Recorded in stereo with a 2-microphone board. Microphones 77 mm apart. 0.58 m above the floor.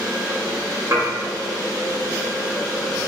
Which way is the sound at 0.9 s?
35° right (ahead or behind).